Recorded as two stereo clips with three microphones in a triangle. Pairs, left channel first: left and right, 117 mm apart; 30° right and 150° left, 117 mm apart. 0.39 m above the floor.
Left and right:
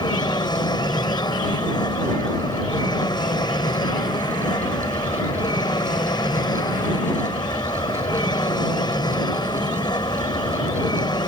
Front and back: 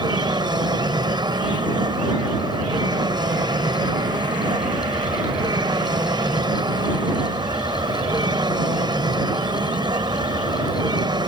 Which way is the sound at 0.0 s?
120° left.